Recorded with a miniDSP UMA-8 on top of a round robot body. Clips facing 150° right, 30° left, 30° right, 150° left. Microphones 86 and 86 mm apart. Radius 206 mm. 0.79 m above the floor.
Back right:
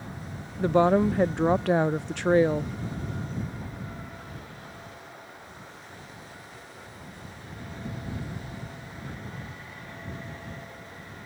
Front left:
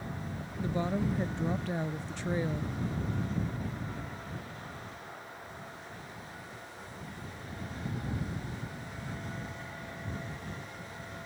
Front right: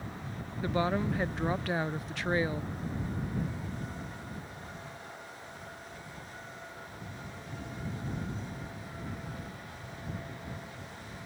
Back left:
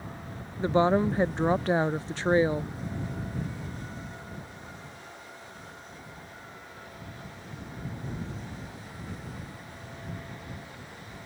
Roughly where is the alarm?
I don't hear an alarm.